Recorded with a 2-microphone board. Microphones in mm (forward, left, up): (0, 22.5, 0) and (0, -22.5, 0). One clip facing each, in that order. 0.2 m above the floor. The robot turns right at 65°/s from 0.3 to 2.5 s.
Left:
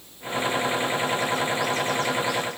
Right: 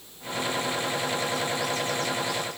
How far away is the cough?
I don't hear a cough.